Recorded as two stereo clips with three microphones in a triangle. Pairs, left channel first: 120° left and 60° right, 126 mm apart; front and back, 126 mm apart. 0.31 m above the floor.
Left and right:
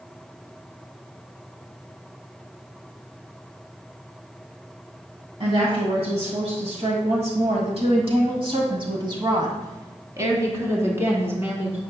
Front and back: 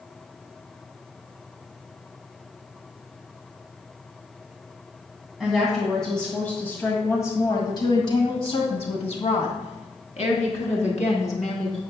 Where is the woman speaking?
95° right, 2 m; by 11.8 s 15° left, 3 m.